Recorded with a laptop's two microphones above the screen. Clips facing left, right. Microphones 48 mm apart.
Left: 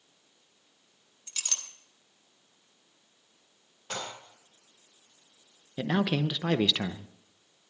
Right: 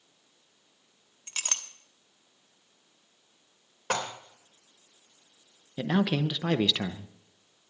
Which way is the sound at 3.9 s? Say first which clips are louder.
Right 7 dB; 85° right.